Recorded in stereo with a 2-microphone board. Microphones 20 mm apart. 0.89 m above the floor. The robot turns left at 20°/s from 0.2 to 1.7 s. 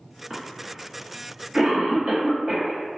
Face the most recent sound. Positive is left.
turn(degrees=-65)  # may be behind; listen again after turning